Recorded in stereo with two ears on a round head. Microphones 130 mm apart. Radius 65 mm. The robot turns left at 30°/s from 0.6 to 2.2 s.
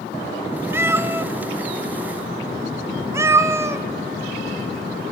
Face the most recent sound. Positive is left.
turn(degrees=-20)  # may be behind; listen again after turning